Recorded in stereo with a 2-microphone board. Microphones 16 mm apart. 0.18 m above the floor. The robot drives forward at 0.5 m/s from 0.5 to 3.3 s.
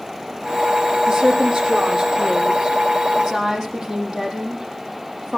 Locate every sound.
1.1 s a woman speaking: 40° right (ahead or behind), 5.5 m; by 5.4 s 35° right (ahead or behind), 6.5 m